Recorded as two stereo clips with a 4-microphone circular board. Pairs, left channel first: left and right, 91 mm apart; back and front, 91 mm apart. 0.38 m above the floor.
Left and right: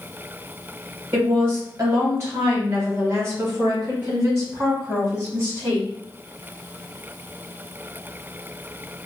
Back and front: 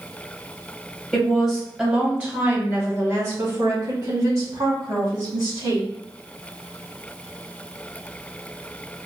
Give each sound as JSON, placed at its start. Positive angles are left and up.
{"t": 1.1, "sound": "a woman speaking", "azimuth_deg": -110, "distance_m": 1.1}